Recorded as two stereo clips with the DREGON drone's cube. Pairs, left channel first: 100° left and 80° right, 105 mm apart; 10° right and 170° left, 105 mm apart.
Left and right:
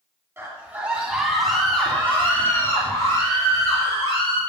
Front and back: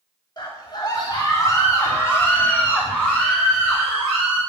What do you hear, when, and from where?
0.4 s a scream: 25° right, 2 m; by 4.4 s 80° left, 3 m